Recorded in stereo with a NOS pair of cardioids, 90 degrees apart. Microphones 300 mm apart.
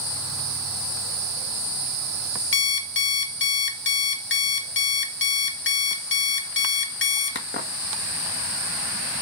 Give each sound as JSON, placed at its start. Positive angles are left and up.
{"t": 2.5, "sound": "an alarm clock", "azimuth_deg": 45, "distance_m": 1.6}